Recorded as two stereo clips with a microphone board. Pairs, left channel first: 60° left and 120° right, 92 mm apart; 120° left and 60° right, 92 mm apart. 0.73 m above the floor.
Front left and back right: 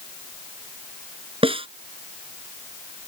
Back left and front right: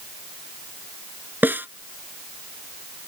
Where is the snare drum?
130° right.